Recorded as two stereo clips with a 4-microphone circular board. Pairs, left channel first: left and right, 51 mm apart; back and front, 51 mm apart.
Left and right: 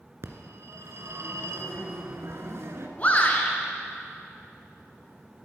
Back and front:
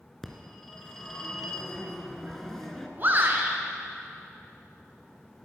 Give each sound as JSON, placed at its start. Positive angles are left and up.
{"t": 0.2, "sound": "a phone ringing", "azimuth_deg": -95, "distance_m": 1.6}
{"t": 3.0, "sound": "a shout", "azimuth_deg": 40, "distance_m": 1.9}